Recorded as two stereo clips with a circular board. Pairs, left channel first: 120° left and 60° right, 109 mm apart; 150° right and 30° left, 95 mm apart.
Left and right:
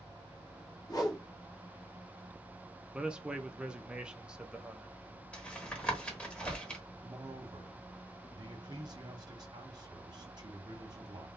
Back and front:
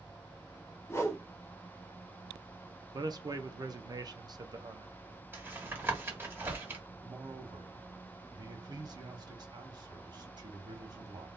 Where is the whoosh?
160° left, 0.8 m.